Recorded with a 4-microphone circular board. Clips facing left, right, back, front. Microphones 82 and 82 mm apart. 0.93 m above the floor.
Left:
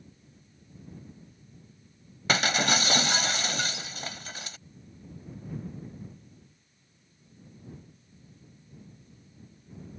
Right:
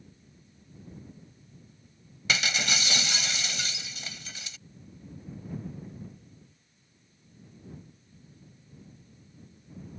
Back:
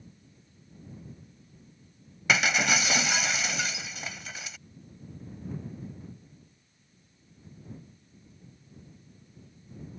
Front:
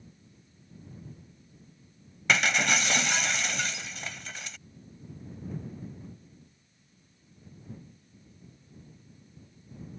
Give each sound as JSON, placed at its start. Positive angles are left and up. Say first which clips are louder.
{"t": 2.3, "sound": "breaking glass", "louder": "left 4 dB, even", "azimuth_deg": 95}